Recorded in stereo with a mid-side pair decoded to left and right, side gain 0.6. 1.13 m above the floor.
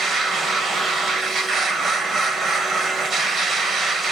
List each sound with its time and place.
0.0 s a machine running: 35° right, 2 m